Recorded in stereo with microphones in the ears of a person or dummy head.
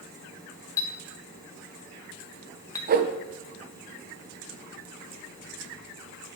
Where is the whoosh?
45° right (ahead or behind), 0.7 m.